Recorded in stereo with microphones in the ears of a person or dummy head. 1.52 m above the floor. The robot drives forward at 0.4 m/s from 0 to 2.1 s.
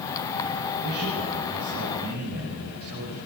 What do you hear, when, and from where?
0.8 s a man speaking: 50° right (ahead or behind), 8.5 m; by 3.2 s 55° right (ahead or behind), 8.5 m